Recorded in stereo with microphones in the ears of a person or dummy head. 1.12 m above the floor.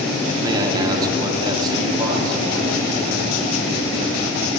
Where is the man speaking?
20° right (ahead or behind), 0.8 m.